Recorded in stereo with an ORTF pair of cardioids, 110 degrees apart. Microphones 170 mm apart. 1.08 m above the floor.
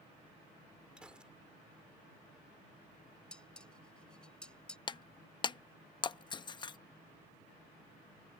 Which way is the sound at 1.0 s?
5° right.